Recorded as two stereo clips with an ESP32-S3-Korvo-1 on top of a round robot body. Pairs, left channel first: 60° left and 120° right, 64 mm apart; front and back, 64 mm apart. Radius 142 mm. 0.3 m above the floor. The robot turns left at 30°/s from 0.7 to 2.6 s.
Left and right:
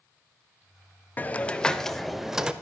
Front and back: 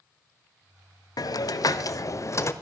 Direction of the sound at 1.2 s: Straight ahead.